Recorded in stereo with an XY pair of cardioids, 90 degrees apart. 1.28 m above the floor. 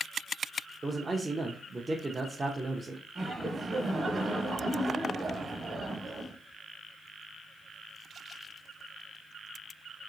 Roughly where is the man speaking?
Ahead right.